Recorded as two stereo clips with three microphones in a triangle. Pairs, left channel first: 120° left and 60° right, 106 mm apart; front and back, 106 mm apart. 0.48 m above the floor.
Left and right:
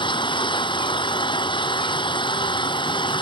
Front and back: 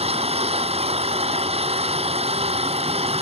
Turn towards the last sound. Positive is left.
turn(degrees=160)